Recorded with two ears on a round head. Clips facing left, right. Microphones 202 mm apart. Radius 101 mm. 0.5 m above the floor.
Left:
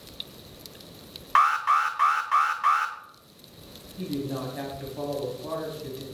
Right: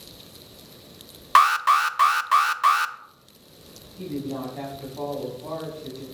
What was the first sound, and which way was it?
An alarm, 50° right (ahead or behind).